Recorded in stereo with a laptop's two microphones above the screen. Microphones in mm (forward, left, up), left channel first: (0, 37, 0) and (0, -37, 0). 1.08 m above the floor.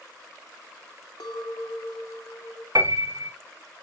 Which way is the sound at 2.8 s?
50° right (ahead or behind).